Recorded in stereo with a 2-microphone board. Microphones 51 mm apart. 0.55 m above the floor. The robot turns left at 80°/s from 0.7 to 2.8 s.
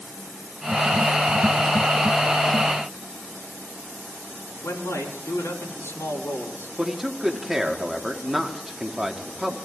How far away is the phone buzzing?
No phone buzzing in this recording.